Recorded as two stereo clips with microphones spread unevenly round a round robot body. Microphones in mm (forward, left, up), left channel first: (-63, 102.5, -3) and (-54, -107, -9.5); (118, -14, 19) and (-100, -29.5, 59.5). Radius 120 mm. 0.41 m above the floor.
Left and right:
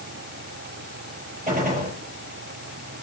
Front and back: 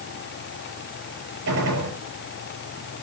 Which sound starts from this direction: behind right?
A gunshot, at 1.5 s.